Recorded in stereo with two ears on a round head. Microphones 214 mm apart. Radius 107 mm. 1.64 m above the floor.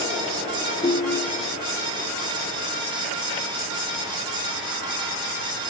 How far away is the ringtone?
About 0.8 m.